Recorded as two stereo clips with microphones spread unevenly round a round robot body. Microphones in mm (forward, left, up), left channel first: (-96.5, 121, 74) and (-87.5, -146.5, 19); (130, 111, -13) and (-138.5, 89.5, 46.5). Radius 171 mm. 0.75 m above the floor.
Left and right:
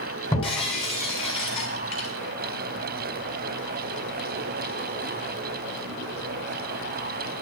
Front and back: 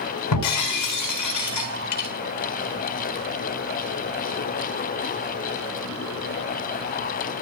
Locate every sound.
0.3 s breaking glass: 20° left, 3.5 m